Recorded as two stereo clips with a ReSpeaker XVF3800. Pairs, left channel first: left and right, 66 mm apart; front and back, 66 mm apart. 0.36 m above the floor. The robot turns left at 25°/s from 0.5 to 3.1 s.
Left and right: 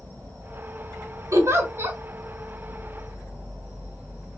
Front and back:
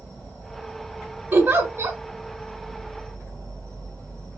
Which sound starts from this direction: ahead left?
An insect, at 0.0 s.